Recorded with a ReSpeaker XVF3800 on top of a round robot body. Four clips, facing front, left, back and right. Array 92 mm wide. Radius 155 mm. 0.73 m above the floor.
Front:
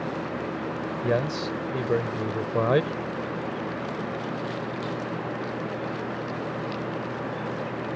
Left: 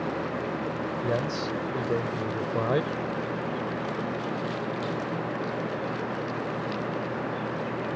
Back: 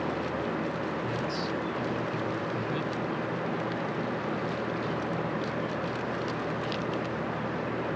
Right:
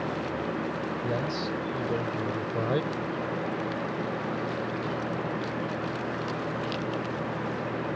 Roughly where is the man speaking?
Ahead.